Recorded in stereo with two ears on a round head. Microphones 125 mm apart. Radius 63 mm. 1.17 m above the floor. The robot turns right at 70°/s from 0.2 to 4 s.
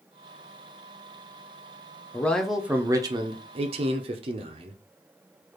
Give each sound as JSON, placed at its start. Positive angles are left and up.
{"t": 2.1, "sound": "a man speaking", "azimuth_deg": 160, "distance_m": 0.6}